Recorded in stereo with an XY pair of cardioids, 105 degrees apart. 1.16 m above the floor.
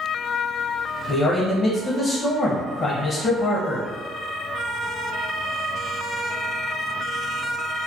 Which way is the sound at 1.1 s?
50° left.